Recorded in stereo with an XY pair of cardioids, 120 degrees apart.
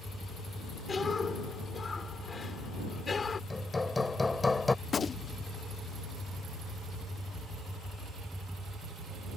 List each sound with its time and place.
0.9 s a cough: 30° left
3.5 s hammering: 20° left
4.8 s a gunshot: 35° left